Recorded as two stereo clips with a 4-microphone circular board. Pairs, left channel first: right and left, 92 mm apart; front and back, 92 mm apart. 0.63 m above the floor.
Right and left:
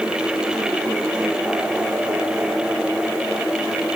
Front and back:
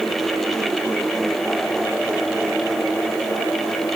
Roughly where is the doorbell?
No doorbell in this recording.